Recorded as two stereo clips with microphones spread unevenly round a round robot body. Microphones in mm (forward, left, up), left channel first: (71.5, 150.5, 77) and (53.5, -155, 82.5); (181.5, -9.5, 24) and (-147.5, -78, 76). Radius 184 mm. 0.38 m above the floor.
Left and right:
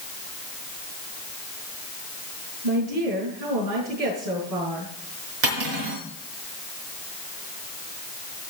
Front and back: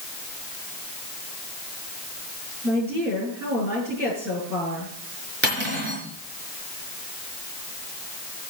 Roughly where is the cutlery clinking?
Right.